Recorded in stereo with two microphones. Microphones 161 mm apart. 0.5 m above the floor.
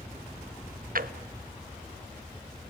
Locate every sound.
0.9 s a drawer: 65° right (ahead or behind), 0.8 m